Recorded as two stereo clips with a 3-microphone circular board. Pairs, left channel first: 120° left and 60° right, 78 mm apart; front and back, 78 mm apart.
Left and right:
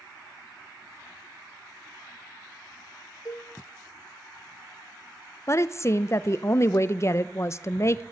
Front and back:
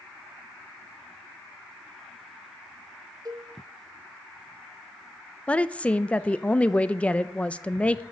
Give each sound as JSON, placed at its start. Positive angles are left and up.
{"t": 3.2, "sound": "a cowbell", "azimuth_deg": 155, "distance_m": 1.0}
{"t": 5.5, "sound": "a woman speaking", "azimuth_deg": 70, "distance_m": 0.5}